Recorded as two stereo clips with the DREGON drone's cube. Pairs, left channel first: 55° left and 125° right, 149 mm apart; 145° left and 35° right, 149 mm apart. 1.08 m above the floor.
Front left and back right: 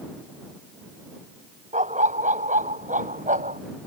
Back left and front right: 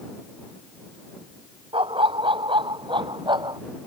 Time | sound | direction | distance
1.7 | a dog barking | 90° right | ?